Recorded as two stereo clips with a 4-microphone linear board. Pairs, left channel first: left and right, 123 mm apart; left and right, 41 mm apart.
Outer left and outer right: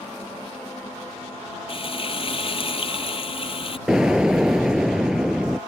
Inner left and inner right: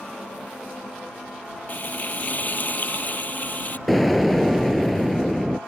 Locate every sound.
1.7 s frying: 50° left (ahead or behind)
3.9 s an explosion: 5° right (ahead or behind)